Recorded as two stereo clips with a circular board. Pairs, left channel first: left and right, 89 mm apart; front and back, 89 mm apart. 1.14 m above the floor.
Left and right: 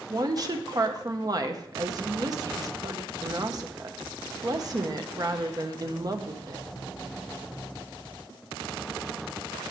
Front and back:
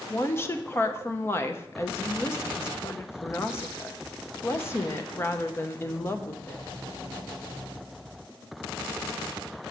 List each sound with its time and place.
0.1 s a woman speaking: 55° right, 0.9 m